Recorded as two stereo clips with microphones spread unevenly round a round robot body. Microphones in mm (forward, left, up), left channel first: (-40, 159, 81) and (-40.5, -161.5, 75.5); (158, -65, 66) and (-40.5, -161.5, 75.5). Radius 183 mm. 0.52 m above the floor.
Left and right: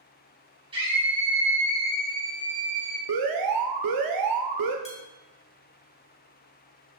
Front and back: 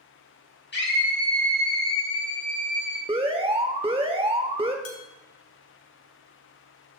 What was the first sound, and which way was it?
A scream, 15° right.